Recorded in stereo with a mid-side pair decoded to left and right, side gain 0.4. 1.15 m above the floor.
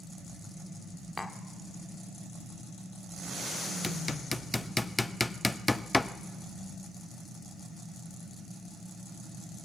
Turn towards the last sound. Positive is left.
turn(degrees=15)